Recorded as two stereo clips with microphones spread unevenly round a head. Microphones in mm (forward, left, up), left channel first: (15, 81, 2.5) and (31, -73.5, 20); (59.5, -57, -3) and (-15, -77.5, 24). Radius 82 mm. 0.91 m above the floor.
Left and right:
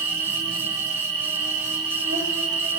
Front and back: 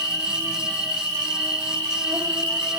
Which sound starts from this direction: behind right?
An insect, at 0.0 s.